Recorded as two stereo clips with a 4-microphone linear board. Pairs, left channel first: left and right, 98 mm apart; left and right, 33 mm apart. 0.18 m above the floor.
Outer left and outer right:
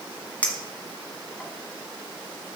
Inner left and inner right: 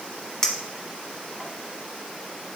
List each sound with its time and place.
0.4 s a clink: 15° left (ahead or behind), 1.1 m